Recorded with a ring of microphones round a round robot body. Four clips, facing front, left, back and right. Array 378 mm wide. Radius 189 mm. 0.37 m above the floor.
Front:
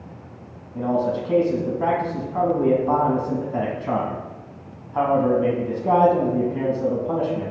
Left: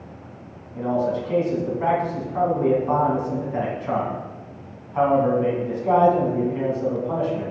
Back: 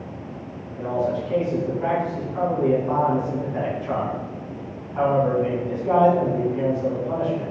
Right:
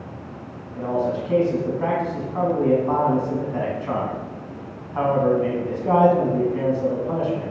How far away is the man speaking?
About 3.5 m.